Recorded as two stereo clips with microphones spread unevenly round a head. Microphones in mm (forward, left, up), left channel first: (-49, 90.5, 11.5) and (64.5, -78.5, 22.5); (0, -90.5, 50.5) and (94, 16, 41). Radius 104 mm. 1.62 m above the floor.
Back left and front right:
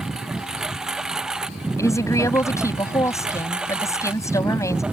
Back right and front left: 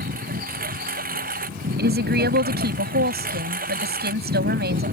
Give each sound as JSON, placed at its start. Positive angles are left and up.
{"t": 0.0, "sound": "a lawn mower", "azimuth_deg": 30}
{"t": 1.8, "sound": "a woman speaking", "azimuth_deg": 45}